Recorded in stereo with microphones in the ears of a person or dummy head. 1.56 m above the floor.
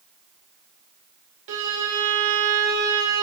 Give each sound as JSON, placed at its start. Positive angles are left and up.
{"t": 1.5, "sound": "a violin", "side_deg": -70, "distance_m": 1.3}